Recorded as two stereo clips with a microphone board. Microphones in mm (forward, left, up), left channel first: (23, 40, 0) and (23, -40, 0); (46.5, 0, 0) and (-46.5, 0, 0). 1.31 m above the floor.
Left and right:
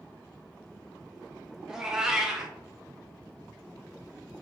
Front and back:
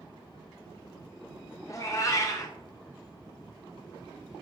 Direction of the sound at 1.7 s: 10° right.